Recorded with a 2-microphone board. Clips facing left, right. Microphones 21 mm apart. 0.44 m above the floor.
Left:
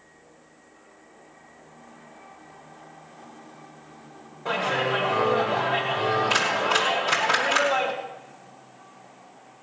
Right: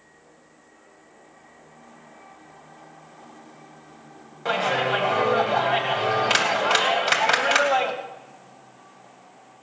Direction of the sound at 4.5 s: 60° right (ahead or behind).